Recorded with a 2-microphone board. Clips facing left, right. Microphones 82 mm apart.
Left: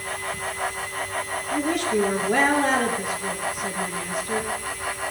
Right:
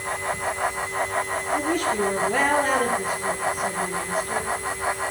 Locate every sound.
1.5 s a woman speaking: 70° left (ahead or behind), 4.5 m